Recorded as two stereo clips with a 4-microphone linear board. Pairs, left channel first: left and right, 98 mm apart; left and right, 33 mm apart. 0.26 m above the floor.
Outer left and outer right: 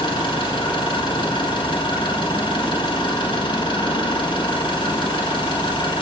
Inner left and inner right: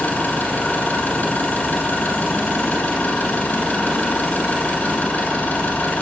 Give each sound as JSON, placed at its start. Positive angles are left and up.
{"t": 0.0, "sound": "an engine running", "side_deg": 55, "distance_m": 5.5}